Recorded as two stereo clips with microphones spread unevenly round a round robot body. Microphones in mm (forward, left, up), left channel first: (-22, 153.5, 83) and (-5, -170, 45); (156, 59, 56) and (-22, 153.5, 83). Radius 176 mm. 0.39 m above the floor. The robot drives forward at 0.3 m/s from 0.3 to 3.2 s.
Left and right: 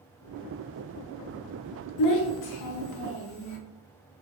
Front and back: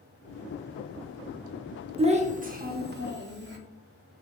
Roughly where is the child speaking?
Left.